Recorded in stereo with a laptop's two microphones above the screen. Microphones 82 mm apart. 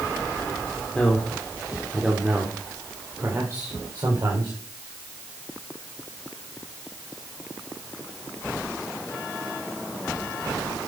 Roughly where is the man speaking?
Centre.